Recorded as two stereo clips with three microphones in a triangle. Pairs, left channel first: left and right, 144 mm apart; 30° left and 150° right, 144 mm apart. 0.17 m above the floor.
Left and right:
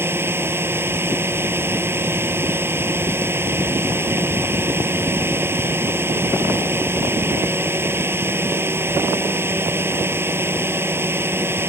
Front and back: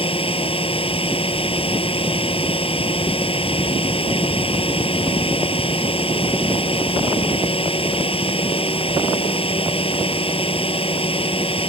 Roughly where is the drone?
Ahead.